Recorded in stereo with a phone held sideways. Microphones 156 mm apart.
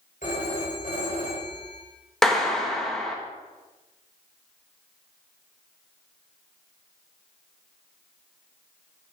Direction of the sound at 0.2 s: 65° left (ahead or behind).